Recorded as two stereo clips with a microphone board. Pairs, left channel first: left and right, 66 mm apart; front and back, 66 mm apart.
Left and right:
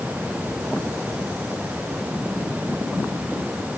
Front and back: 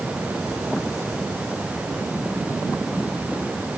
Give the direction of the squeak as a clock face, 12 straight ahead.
I don't hear a squeak.